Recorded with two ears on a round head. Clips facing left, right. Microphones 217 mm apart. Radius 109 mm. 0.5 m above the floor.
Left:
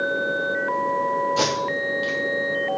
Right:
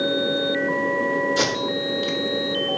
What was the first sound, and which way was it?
Tape being pulled, 20° right (ahead or behind).